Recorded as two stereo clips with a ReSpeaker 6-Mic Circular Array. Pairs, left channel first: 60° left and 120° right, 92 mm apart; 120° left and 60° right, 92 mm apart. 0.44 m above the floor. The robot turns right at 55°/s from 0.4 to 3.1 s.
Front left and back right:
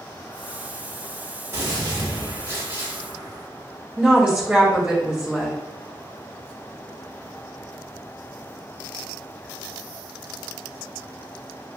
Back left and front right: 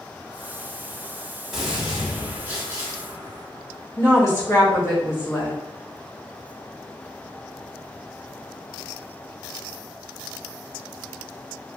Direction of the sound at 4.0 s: 170° left.